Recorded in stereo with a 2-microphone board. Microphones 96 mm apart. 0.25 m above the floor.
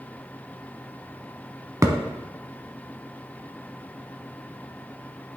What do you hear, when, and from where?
1.8 s a thud: 30° right (ahead or behind), 0.9 m